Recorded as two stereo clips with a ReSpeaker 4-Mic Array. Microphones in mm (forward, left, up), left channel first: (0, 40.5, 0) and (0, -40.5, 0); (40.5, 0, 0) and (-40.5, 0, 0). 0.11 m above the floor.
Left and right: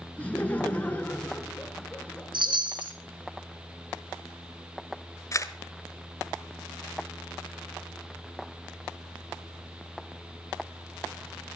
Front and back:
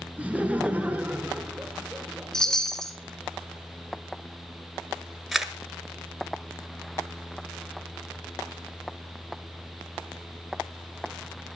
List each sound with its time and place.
0.2 s laughter: 135° left, 1.2 m
2.3 s a chime: 85° right, 2 m
5.3 s a camera shutter: 90° left, 1.2 m